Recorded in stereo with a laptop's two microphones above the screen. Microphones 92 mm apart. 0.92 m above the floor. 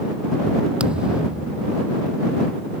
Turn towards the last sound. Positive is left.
turn(degrees=-10)  # may be behind; listen again after turning